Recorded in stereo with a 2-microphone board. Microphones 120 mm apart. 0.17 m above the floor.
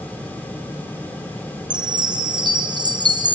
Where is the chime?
40° right (ahead or behind), 1.3 m.